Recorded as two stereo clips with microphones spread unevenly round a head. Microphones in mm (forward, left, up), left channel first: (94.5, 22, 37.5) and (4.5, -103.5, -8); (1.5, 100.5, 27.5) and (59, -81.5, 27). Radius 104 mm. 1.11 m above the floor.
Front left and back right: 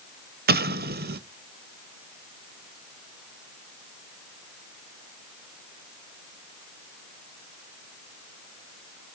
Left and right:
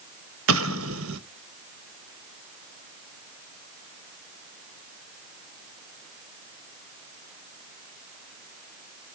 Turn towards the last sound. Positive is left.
turn(degrees=-100)